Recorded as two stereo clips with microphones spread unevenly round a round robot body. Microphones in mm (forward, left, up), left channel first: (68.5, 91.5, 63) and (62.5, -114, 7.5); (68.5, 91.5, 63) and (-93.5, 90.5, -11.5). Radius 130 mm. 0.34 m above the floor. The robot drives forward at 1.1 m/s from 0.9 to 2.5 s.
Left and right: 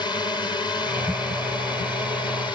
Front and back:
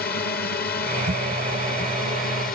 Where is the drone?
10° left; by 2.5 s 15° left.